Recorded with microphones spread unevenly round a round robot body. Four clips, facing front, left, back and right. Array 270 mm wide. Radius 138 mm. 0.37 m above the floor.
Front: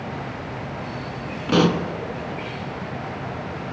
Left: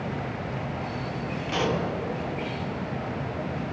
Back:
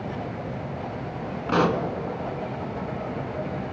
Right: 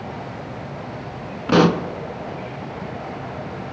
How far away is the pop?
About 1.1 m.